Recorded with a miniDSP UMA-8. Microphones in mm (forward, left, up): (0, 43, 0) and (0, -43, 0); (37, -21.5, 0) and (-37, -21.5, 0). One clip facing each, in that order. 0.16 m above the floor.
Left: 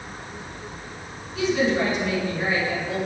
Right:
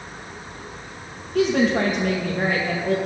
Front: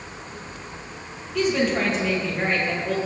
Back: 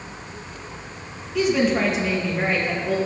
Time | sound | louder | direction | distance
1.4 | a woman speaking | right 3 dB, back 2 dB | 95° right | 4.5 m